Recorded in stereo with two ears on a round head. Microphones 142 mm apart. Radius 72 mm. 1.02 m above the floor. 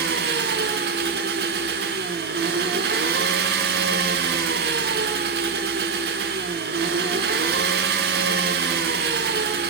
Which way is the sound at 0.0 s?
70° right (ahead or behind).